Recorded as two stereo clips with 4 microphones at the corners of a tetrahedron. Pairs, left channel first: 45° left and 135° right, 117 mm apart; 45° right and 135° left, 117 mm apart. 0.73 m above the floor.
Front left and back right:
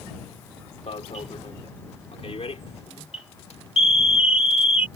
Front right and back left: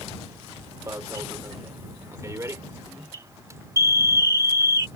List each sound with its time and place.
0.9 s an alarm: 70° left